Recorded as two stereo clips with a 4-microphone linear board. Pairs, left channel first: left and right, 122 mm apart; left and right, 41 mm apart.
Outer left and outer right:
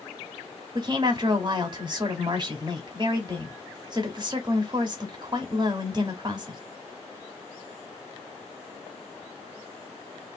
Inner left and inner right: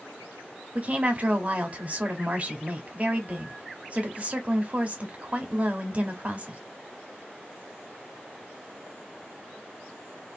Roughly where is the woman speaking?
Right.